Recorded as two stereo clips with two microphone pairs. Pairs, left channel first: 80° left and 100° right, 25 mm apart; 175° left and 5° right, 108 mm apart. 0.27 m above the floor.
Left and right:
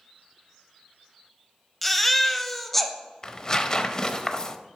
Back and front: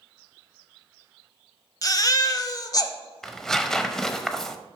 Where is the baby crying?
160° left, 0.6 m.